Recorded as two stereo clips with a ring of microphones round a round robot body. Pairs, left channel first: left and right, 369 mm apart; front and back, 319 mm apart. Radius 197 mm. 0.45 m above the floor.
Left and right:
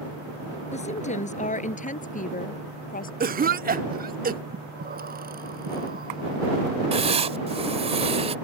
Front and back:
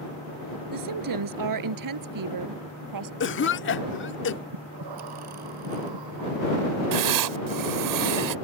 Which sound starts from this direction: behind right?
Breathing, at 4.5 s.